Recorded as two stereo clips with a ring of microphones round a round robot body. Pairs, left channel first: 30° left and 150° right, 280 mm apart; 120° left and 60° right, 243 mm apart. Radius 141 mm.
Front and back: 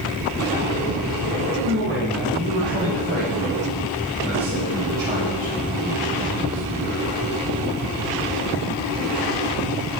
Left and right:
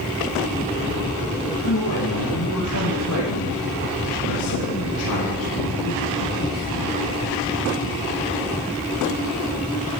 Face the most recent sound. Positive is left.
turn(degrees=140)